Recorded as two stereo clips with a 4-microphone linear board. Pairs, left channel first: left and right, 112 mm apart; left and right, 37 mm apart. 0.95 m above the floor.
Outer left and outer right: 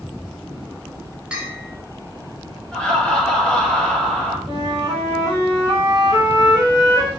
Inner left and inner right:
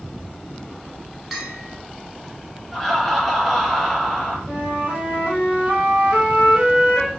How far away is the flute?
About 1.8 m.